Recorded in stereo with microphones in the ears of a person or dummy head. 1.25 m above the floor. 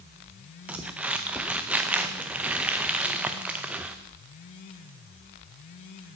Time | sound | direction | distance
0.7 | crumpling | 5° right (ahead or behind) | 0.6 m